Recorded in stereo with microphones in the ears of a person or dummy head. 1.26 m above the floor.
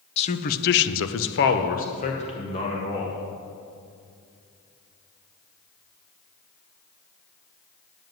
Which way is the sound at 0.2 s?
35° left (ahead or behind).